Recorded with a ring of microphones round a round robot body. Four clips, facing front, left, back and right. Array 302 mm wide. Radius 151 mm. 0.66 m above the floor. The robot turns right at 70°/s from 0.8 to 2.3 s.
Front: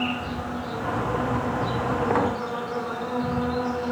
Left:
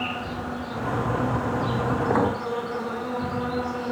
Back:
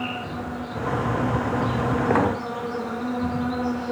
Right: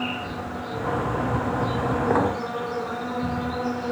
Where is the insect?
55° left, 3.5 m; by 3.9 s 160° left, 3.5 m.